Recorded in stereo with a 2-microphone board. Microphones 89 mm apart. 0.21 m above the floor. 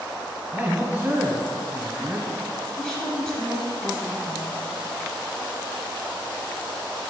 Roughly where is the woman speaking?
Centre.